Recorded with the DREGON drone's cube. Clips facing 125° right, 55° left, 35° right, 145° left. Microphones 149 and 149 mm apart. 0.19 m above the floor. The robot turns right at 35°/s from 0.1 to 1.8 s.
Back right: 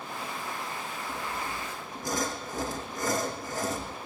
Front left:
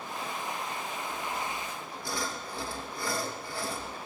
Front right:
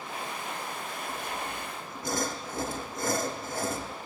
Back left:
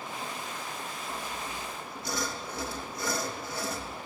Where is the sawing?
100° right, 3 m; by 4.0 s 75° right, 3 m.